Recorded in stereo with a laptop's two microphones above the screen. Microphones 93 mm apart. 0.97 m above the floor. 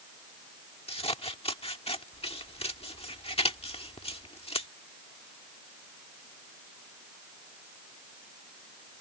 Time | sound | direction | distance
0.9 | scissors | 85° left | ?